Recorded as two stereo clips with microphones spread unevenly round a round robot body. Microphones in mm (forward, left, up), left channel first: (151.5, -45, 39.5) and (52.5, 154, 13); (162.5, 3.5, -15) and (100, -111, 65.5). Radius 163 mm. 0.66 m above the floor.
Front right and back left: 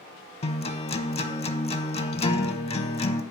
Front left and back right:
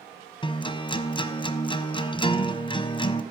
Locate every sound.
0.4 s a guitar: 20° right, 0.6 m